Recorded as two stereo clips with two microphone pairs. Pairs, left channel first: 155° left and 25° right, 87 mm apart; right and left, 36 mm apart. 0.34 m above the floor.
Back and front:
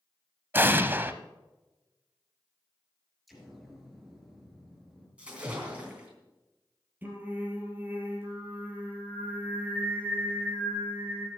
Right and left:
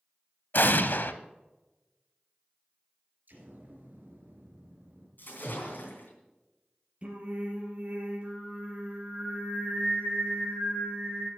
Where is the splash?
105° right, 3.5 m.